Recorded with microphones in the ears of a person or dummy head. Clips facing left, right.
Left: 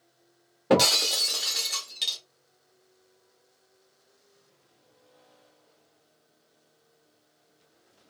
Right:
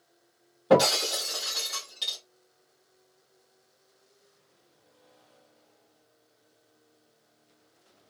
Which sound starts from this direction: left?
Breaking glass, at 0.7 s.